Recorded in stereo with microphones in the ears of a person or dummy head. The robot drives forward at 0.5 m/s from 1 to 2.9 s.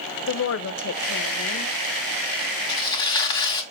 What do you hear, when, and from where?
0.3 s a woman speaking: 65° left (ahead or behind), 0.7 m; by 1.7 s 45° left (ahead or behind), 0.9 m
2.7 s tearing paper: 25° left (ahead or behind), 1.1 m